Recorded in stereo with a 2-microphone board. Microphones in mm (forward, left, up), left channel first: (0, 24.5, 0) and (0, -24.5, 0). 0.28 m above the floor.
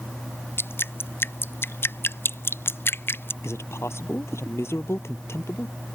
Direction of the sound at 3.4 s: 70° left (ahead or behind).